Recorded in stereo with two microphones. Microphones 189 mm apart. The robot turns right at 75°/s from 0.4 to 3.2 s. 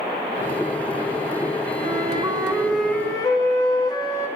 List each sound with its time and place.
1.8 s a flute: 70° right, 1.2 m; by 4.3 s 30° left, 1.2 m